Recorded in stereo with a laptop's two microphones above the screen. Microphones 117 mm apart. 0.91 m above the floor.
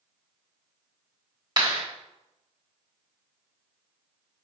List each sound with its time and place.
1.6 s a clap: 40° right (ahead or behind), 1.2 m